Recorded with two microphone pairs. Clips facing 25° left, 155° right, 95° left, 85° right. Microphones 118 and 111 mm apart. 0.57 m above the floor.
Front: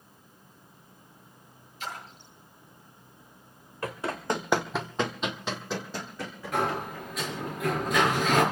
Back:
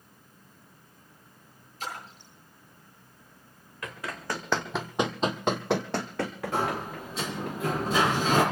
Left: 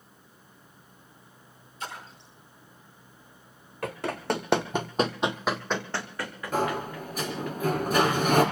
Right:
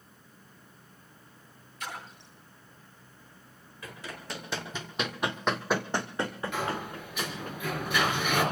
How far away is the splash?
About 8.5 m.